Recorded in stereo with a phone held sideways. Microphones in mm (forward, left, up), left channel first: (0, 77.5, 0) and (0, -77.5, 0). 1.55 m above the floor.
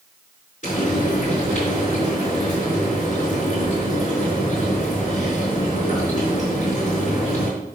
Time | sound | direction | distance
0.6 | frying | 55° left (ahead or behind) | 4.5 m